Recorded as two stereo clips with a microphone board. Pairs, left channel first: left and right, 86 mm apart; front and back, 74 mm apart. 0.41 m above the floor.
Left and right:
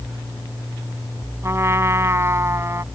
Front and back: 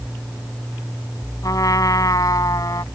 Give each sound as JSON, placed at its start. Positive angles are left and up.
{"t": 1.4, "sound": "a trumpet", "azimuth_deg": -35}